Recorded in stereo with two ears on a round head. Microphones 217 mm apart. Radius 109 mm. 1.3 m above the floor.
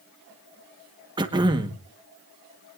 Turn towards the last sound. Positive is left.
turn(degrees=-20)  # may be behind; listen again after turning